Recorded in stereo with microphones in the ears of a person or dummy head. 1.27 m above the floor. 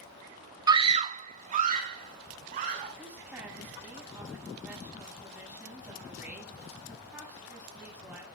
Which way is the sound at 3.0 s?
5° right (ahead or behind).